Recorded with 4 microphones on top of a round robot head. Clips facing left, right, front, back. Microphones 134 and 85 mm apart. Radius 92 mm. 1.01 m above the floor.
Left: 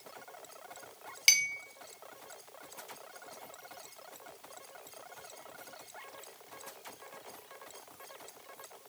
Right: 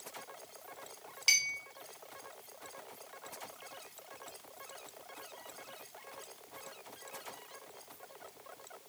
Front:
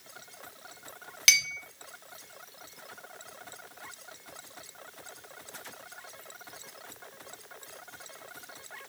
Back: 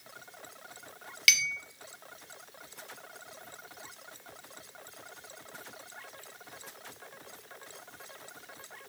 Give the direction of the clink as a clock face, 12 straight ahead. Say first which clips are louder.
Left 3 dB, even; 10 o'clock.